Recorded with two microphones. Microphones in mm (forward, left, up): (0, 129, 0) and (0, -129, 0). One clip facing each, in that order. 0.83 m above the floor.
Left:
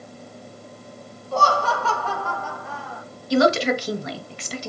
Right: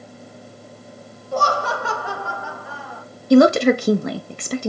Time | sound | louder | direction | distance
1.3 | laughter | even | 15° right (ahead or behind) | 1.1 m
3.3 | a woman speaking | right 7 dB | 55° right (ahead or behind) | 0.6 m